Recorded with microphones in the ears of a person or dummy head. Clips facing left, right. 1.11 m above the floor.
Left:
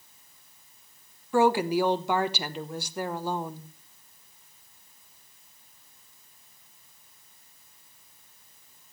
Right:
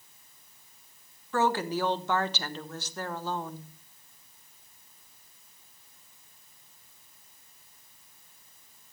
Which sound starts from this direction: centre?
A woman speaking, at 1.3 s.